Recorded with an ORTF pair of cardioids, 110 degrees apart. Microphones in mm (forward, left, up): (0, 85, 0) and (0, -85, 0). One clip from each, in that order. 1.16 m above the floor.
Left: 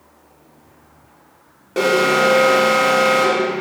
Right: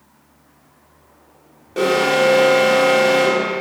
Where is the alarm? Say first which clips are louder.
Left 1 dB; 30° left, 2 m.